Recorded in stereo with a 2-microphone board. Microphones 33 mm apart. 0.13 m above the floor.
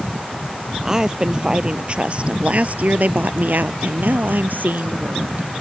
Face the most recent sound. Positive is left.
turn(degrees=-60)  # may be behind; listen again after turning